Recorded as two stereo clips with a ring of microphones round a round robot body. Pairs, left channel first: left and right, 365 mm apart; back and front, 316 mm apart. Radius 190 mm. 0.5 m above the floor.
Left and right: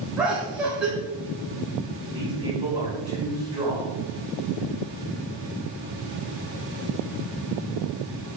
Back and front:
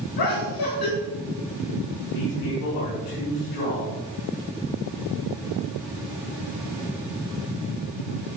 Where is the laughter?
175° right, 3 m.